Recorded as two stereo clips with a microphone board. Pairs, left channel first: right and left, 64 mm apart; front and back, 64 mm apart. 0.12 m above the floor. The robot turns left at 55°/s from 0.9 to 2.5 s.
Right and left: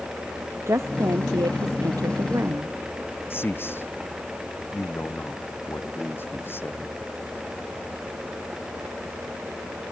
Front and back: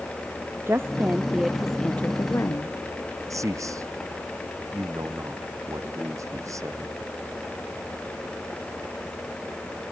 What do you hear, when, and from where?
0.7 s a woman speaking: 130° left; by 2.8 s 45° left
3.3 s a man speaking: 145° right